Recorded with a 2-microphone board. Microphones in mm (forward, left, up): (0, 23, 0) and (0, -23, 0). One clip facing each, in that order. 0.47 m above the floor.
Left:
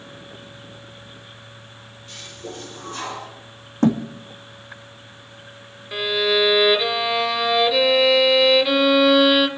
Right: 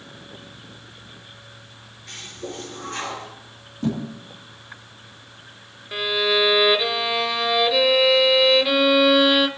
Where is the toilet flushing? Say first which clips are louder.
Right 2 dB; 80° right, 7 m.